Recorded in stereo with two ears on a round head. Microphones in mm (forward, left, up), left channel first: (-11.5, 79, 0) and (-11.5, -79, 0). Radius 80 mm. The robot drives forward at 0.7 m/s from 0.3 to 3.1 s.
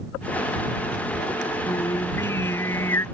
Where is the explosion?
I don't hear an explosion.